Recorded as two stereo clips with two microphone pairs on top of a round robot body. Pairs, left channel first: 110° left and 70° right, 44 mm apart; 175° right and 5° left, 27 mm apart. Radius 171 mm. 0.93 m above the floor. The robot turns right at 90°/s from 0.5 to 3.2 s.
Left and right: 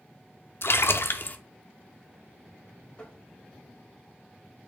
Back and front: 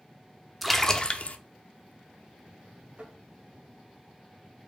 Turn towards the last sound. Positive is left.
turn(degrees=65)